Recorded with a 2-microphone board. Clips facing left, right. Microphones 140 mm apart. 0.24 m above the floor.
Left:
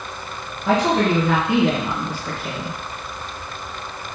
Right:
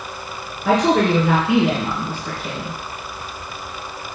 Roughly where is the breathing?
No breathing in this recording.